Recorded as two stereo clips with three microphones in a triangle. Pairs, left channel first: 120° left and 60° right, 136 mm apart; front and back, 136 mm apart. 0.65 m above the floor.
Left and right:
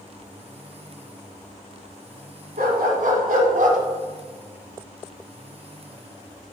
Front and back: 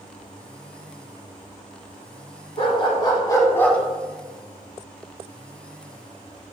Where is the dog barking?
45° right, 1.8 m; by 3.8 s 80° right, 1.3 m.